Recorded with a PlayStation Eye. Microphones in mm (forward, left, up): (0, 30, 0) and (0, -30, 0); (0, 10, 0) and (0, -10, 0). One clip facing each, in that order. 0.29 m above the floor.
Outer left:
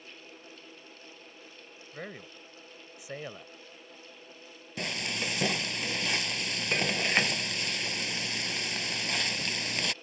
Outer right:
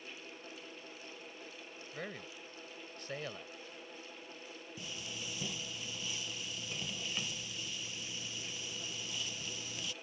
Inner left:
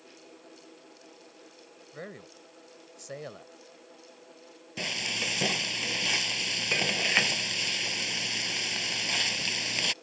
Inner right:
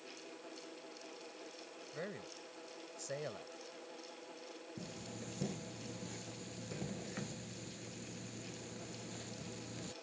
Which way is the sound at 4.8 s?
80° left.